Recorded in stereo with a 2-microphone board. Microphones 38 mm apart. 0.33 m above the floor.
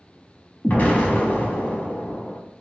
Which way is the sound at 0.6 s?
45° left (ahead or behind).